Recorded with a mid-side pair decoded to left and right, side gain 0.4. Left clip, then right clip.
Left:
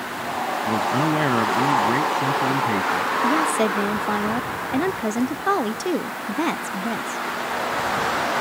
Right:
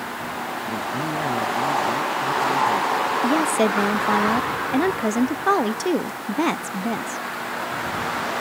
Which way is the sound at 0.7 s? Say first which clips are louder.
Left 7 dB; 50° left.